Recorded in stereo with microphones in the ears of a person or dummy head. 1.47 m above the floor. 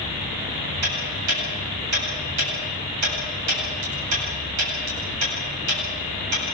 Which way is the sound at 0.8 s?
90° right.